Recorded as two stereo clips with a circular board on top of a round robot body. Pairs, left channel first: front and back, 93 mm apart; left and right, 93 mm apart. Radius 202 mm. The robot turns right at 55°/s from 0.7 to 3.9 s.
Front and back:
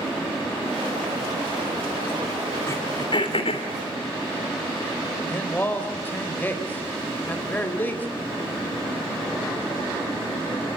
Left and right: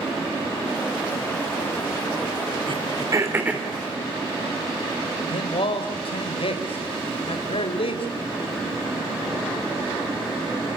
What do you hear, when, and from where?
2.7 s throat clearing: 60° right, 3 m; by 3.7 s 5° right, 3 m
5.3 s a man speaking: 70° left, 4 m